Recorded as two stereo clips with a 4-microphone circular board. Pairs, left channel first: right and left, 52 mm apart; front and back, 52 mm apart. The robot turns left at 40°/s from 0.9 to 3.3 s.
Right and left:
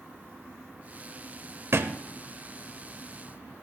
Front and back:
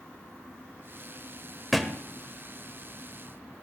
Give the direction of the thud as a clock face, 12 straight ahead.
9 o'clock.